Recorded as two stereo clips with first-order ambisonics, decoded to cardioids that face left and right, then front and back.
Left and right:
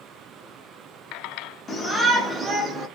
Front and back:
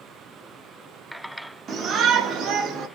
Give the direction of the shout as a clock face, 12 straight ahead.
7 o'clock.